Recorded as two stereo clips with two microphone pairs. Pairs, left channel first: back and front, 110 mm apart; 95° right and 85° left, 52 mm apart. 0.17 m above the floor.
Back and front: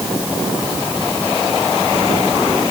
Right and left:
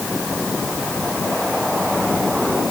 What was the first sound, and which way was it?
Only background noise.